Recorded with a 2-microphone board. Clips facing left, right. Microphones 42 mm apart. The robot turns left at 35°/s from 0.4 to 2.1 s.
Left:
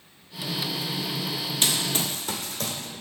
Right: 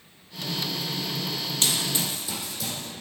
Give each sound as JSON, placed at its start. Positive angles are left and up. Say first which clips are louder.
{"t": 1.6, "sound": "running footsteps", "louder": "left 1 dB", "side_deg": 20, "distance_m": 1.3}